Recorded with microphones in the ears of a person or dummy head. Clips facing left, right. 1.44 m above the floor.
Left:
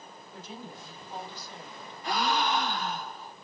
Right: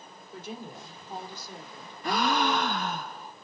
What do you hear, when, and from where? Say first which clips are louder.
0.3 s a woman speaking: right 4 dB; 55° right (ahead or behind), 4 m; by 1.9 s 40° right (ahead or behind), 3 m
2.0 s a gasp: right 2 dB; 55° right (ahead or behind), 0.9 m